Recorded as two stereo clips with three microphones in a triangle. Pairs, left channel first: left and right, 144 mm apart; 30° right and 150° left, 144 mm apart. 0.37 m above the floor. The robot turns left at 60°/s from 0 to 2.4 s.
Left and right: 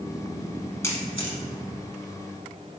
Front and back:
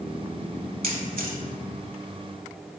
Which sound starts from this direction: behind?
A camera shutter, at 0.8 s.